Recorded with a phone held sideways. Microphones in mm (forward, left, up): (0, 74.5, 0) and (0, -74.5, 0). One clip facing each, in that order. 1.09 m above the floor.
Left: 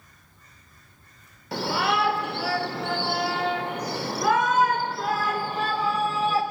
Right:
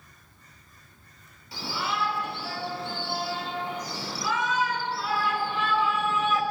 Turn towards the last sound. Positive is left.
turn(degrees=35)  # may be behind; listen again after turning